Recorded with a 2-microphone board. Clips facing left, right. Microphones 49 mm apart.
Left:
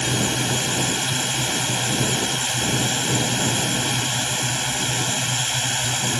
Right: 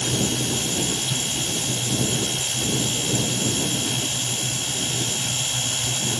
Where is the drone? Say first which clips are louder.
Left 2 dB; 75° left (ahead or behind); by 6.2 s 70° left (ahead or behind).